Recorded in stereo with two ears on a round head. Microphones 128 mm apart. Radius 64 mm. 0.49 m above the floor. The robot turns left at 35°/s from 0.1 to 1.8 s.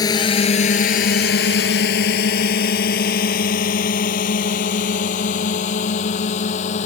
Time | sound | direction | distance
0.0 | a drone | 30° left (ahead or behind) | ?